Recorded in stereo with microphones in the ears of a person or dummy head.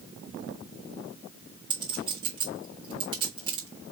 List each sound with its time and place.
1.7 s a clink: 25° right (ahead or behind), 1.3 m